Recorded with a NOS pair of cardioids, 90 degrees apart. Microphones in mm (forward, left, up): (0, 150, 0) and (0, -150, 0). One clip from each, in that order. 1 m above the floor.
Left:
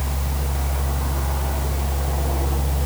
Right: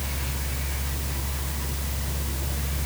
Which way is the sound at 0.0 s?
50° left.